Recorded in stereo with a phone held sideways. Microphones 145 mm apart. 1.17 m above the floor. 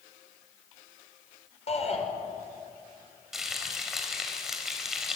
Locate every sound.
1.7 s a shout: 45° left (ahead or behind), 5.5 m
3.3 s frying: centre (ahead or behind), 4 m